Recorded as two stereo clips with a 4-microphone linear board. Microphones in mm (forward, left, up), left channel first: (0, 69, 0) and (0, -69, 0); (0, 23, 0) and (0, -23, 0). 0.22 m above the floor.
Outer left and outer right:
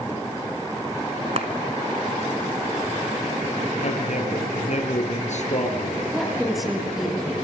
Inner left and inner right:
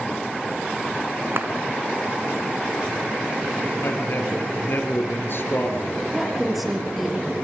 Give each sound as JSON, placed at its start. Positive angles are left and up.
{"t": 1.4, "sound": "a clap", "side_deg": -50, "distance_m": 2.5}
{"t": 3.8, "sound": "a man speaking", "side_deg": 60, "distance_m": 5.0}
{"t": 6.1, "sound": "a woman speaking", "side_deg": 0, "distance_m": 5.0}